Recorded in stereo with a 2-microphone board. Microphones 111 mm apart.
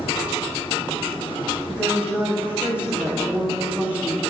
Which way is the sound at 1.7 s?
10° right (ahead or behind).